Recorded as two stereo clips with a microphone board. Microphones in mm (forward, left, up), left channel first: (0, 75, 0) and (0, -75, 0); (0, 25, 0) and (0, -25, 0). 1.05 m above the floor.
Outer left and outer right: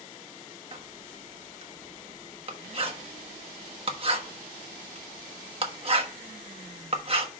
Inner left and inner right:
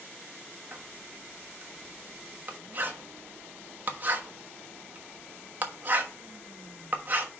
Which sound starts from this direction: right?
Writing, at 0.7 s.